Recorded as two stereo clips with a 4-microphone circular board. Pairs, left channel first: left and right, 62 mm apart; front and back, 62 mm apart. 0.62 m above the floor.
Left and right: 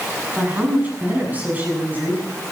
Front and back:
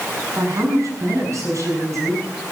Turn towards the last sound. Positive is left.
turn(degrees=-150)